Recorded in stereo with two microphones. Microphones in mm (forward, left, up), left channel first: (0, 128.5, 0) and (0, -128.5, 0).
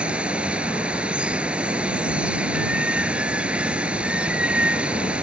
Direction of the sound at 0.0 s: 5° right (ahead or behind).